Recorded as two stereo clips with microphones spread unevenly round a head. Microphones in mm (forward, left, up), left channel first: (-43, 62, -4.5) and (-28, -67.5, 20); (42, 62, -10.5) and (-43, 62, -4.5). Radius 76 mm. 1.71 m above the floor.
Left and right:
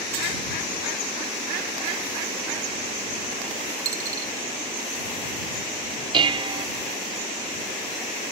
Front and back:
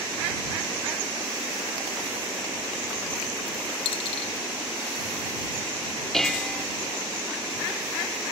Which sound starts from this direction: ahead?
A dropped coin, at 3.9 s.